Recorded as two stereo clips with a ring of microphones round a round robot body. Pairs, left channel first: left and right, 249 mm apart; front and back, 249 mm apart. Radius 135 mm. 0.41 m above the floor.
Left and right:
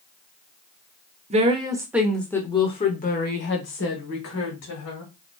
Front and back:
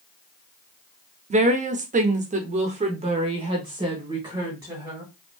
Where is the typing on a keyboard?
No typing on a keyboard in this recording.